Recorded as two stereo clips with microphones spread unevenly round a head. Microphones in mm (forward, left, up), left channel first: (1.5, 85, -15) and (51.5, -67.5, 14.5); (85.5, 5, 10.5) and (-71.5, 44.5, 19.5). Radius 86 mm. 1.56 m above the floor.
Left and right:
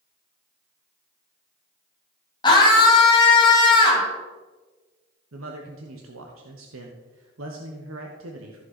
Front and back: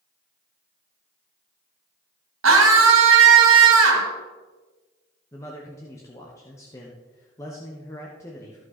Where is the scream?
175° left, 2 m.